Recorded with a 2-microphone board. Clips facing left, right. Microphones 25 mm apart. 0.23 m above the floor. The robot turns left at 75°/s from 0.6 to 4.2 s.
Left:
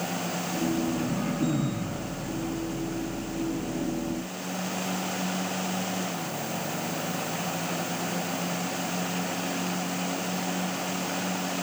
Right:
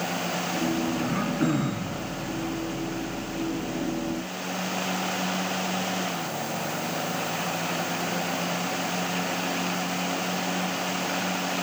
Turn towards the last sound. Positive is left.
turn(degrees=65)